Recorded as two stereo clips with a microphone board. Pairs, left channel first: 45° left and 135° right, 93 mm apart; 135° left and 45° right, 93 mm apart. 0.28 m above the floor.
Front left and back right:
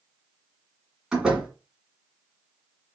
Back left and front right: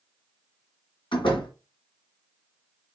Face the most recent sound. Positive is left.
turn(degrees=140)